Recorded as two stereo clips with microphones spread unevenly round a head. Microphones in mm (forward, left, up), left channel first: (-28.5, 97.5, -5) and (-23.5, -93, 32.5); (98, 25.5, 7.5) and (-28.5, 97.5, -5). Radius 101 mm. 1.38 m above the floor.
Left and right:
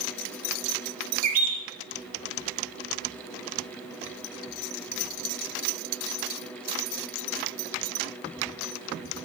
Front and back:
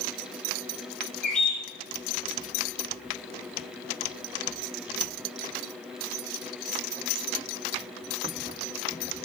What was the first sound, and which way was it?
A bird, 110° right.